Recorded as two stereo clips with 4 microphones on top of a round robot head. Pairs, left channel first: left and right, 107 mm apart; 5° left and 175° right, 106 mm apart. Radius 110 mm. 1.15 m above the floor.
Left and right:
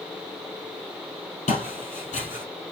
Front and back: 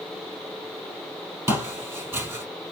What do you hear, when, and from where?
1.5 s footsteps: 120° left, 2.5 m